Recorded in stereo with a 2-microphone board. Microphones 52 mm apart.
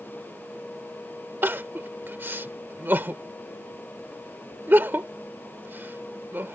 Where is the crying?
45° right (ahead or behind).